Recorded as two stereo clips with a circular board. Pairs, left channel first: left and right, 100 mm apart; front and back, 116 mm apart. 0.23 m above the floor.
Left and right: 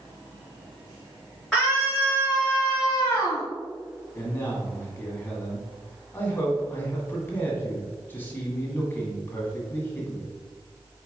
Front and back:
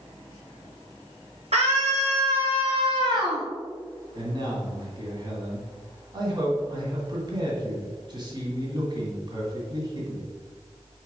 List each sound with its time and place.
1.5 s a scream: straight behind, 3 m; by 3.5 s 135° left, 1.4 m
4.2 s a man speaking: 155° left, 1.8 m